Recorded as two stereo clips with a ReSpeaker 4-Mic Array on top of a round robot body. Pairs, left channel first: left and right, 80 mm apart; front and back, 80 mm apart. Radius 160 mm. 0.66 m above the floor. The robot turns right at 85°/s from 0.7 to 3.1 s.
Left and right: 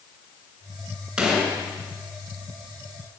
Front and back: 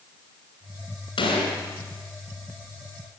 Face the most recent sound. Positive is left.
turn(degrees=150)